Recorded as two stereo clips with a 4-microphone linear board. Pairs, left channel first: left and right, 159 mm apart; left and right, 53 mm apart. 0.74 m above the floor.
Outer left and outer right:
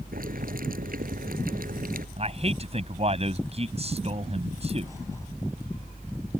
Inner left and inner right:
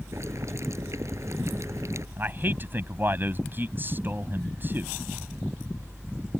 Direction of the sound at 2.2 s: 40° right (ahead or behind).